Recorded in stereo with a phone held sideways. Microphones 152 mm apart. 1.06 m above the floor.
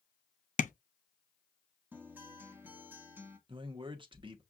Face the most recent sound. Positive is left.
turn(degrees=-35)  # may be behind; listen again after turning